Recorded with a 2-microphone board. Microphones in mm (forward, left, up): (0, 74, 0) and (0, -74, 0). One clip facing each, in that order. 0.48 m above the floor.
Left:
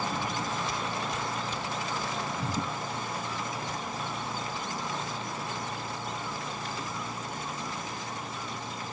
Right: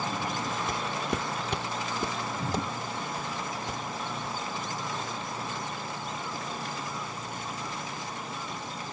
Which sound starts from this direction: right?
Footsteps, at 0.7 s.